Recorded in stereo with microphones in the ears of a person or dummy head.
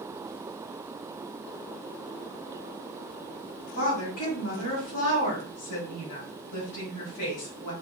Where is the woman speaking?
70° left (ahead or behind), 2.5 m.